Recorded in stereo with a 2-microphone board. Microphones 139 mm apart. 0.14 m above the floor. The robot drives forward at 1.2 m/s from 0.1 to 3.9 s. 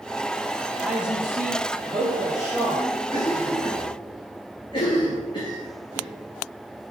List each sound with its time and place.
0.8 s a woman speaking: 5° right (ahead or behind), 1.0 m; by 2.8 s centre (ahead or behind), 3 m
3.1 s a cough: 50° left (ahead or behind), 1.7 m; by 6.1 s 35° left (ahead or behind), 2 m